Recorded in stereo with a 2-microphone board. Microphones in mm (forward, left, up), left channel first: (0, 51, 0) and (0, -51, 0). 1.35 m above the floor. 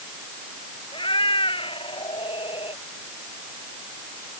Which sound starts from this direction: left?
A cat meowing, at 0.9 s.